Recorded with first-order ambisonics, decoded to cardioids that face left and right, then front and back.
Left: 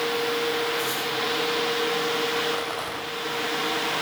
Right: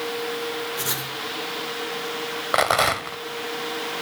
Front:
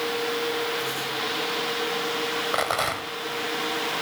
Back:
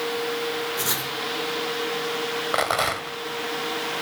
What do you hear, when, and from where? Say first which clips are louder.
0.8 s writing: left 2 dB, back 1 dB; 145° right, 5.5 m
2.5 s a rattle: right 9 dB, back 4 dB; 100° right, 1.7 m